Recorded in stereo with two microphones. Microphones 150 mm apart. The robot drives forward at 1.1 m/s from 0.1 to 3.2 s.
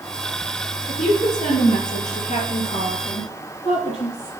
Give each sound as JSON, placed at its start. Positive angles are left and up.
{"t": 0.9, "sound": "a woman speaking", "side_deg": 50, "distance_m": 3.0}